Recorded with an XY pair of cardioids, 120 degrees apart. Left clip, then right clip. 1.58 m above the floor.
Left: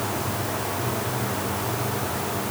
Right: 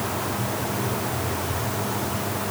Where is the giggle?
No giggle in this recording.